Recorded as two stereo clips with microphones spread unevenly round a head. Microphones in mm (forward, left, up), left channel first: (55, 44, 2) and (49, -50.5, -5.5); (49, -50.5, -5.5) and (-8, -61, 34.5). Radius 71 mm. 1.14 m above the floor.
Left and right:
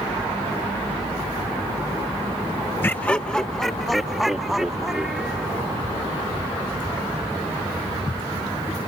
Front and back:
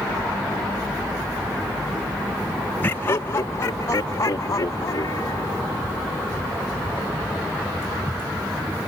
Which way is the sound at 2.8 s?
20° left.